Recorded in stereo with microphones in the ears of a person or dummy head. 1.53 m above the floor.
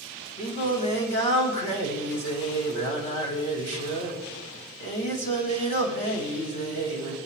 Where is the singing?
40° left (ahead or behind), 4 m.